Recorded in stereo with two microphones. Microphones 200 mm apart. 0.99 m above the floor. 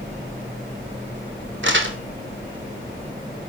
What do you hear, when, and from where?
1.6 s crumpling: 70° right (ahead or behind), 3 m